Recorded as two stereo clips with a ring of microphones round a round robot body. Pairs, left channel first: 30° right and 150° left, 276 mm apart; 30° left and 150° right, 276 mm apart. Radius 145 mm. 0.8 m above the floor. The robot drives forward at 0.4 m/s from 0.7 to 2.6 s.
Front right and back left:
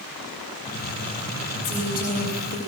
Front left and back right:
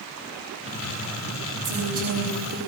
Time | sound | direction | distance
1.6 | a woman speaking | 90° right | 4 m